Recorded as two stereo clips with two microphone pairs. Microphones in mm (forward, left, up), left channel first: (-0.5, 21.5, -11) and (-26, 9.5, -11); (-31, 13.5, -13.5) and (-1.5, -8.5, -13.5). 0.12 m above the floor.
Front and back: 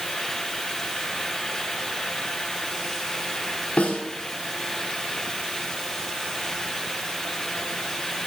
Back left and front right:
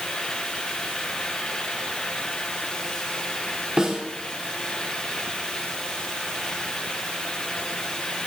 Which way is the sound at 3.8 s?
25° left.